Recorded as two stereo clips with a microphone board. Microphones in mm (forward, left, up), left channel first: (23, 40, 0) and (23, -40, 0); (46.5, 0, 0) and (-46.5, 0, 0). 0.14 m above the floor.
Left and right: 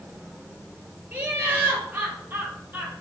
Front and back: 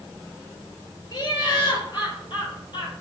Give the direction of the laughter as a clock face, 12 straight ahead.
1 o'clock.